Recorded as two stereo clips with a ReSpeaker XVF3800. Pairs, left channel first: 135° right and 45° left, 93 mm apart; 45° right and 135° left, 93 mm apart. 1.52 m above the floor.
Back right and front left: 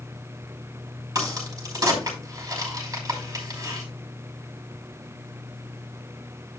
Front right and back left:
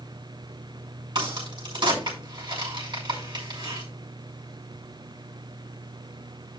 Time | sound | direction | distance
1.1 | a crack | 95° left | 5 m